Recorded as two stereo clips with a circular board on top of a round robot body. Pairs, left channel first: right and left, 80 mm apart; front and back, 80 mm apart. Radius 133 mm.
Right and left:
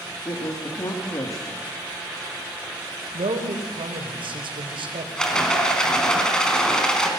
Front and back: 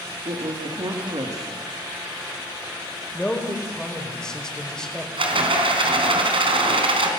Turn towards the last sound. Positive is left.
turn(degrees=-170)